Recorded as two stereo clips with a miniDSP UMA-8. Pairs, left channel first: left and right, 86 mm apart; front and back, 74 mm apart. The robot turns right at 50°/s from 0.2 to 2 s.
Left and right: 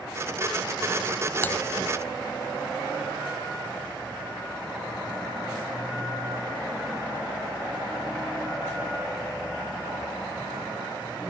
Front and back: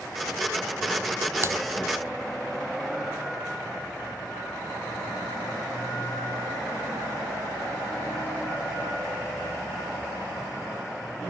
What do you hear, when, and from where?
1.4 s typing on a keyboard: 150° left, 0.8 m; by 1.6 s 155° left, 0.8 m